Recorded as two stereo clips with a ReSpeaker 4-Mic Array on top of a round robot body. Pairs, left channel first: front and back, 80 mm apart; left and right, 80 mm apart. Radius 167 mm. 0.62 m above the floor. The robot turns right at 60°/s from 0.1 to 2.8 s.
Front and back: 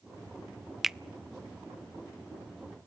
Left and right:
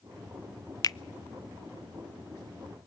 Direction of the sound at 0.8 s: 95° left.